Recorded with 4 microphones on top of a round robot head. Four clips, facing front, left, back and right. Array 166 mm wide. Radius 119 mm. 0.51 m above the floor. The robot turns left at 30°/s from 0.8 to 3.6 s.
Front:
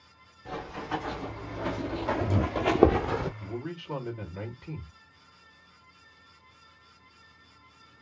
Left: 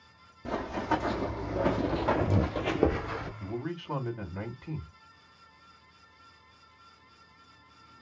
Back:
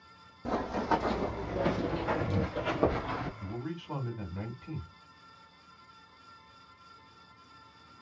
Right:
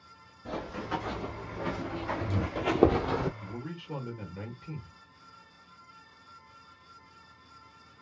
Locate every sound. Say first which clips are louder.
0.5 s running footsteps: left 5 dB, back 5 dB; 150° left, 1.4 m; by 3.3 s 60° right, 0.7 m
3.4 s a man speaking: left 5 dB, front 2 dB; 90° left, 2.5 m; by 4.9 s 80° left, 2.5 m